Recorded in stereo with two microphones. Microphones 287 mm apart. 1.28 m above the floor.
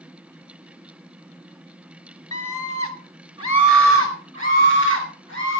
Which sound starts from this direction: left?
A scream, at 2.3 s.